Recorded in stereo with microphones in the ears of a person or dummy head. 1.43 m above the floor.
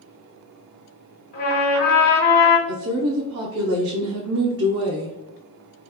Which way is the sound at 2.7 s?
65° right (ahead or behind).